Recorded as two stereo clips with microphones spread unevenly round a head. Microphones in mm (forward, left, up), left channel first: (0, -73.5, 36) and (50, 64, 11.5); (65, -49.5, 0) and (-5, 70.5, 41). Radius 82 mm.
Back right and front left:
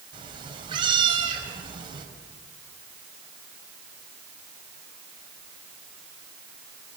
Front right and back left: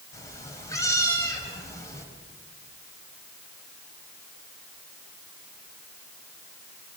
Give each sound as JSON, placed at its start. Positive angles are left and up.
{"t": 0.1, "sound": "a cat meowing", "azimuth_deg": 10, "distance_m": 4.0}